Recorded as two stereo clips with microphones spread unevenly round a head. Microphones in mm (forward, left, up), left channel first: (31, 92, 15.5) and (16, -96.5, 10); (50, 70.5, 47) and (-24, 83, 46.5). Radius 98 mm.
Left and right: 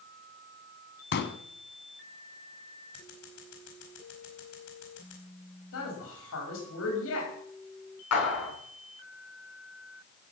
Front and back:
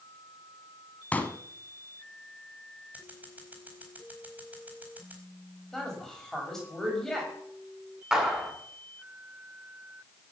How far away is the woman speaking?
About 6.5 m.